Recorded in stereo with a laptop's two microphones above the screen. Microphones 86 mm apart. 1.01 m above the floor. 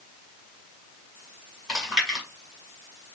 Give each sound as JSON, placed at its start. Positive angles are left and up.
{"t": 1.7, "sound": "chewing", "side_deg": -5, "distance_m": 1.7}